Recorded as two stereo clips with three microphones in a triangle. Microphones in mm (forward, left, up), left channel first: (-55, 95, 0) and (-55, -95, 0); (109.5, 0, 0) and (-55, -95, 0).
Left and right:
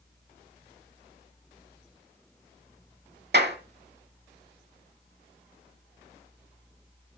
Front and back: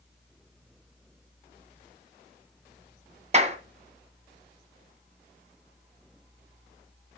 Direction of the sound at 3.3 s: 100° right.